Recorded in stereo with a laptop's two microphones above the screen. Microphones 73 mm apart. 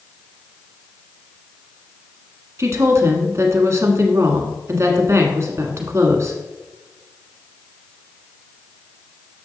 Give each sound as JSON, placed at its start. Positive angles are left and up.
{"t": 2.6, "sound": "a woman speaking", "side_deg": -40, "distance_m": 1.6}